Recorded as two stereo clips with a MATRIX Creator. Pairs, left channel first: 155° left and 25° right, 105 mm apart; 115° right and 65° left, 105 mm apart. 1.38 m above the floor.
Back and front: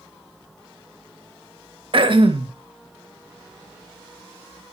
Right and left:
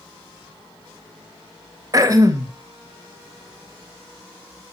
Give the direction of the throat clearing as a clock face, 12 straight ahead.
12 o'clock.